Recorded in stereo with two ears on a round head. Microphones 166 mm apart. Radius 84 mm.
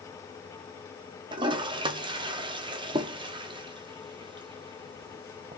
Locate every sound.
1.3 s a toilet flushing: 25° right (ahead or behind), 0.6 m